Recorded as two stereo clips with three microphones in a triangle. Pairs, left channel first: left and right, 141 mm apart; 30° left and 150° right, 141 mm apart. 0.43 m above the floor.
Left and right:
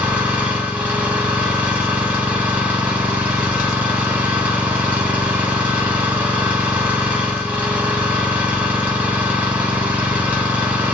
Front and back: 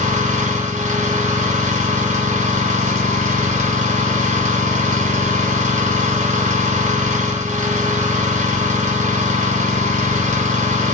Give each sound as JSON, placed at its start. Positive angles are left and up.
{"t": 0.0, "sound": "an engine running", "azimuth_deg": -170, "distance_m": 0.9}